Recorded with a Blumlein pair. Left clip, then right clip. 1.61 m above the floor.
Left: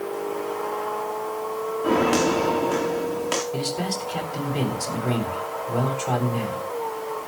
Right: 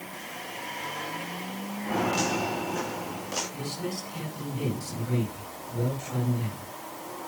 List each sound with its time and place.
1.8 s footsteps: 55° left, 8.5 m
3.5 s a man speaking: 50° left, 8 m